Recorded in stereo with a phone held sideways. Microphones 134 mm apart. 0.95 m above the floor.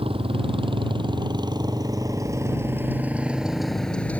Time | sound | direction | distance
0.0 | a motorcycle | 40° right (ahead or behind) | ?